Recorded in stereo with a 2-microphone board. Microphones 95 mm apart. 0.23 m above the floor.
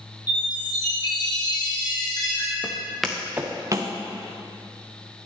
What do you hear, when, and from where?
0.3 s a chime: 45° left (ahead or behind), 3 m
2.6 s footsteps: 20° left (ahead or behind), 1.3 m; by 3.9 s 45° right (ahead or behind), 1.5 m